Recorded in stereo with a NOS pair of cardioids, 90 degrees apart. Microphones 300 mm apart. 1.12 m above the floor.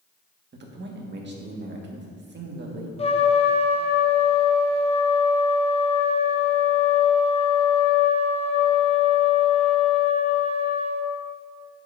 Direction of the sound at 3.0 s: 20° left.